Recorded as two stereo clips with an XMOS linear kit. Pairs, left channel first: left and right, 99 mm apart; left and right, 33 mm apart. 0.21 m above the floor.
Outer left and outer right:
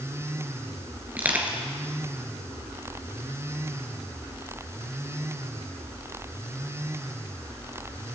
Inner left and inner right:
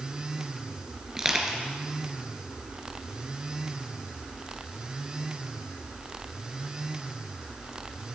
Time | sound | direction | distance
1.2 | crushing | 15° right (ahead or behind) | 2.5 m